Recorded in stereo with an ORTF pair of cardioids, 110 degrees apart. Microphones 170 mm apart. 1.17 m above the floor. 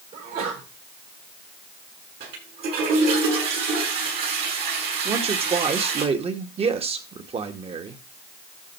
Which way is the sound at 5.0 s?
35° right.